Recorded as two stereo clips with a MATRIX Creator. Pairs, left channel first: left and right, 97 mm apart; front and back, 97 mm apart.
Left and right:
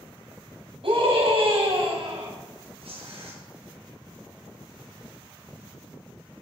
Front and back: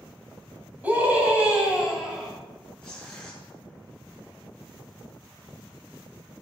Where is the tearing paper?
80° right, 6.5 m.